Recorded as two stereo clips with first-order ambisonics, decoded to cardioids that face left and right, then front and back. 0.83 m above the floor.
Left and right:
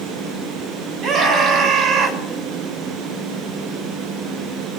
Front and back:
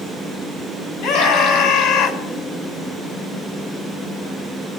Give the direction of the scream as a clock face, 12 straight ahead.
1 o'clock.